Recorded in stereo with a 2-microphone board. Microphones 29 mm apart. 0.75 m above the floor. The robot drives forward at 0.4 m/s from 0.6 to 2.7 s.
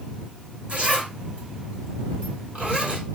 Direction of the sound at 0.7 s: 45° right (ahead or behind).